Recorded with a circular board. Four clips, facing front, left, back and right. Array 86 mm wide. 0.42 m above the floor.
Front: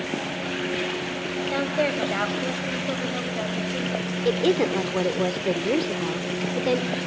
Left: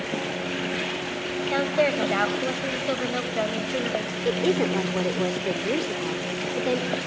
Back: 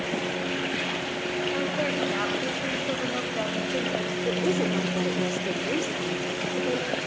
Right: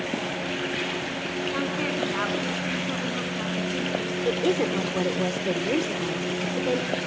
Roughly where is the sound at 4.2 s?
Ahead.